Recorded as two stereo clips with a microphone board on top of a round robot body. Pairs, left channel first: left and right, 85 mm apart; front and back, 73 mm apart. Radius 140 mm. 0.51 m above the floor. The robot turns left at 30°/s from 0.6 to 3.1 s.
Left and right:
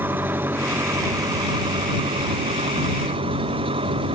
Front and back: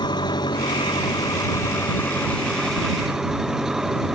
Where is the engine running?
25° right; by 4.2 s 100° right.